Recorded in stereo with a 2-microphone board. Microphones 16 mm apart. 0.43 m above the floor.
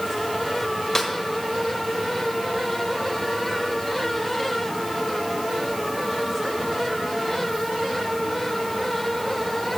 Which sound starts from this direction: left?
A snare drum, at 0.9 s.